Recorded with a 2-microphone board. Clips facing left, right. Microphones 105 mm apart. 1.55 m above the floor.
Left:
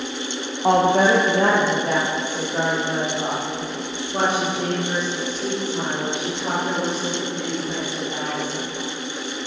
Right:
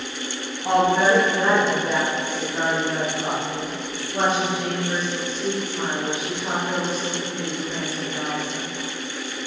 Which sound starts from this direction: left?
A woman speaking, at 0.6 s.